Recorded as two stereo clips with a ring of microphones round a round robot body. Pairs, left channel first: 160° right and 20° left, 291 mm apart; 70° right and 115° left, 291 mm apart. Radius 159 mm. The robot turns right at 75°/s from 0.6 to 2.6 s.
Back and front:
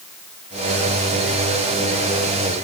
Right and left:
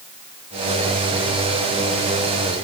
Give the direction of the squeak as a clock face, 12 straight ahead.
I don't hear a squeak.